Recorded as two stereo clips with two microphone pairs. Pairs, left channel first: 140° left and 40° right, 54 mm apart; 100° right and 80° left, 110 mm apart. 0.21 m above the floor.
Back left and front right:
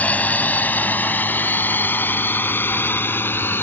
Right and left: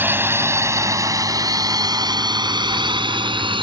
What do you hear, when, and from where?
0.0 s a drone: 130° left; by 3.6 s 105° left